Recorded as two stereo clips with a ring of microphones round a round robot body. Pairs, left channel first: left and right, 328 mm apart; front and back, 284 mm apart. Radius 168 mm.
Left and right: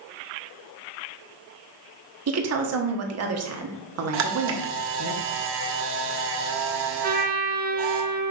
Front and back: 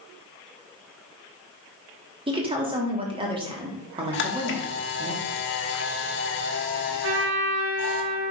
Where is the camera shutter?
45° right, 1.3 m.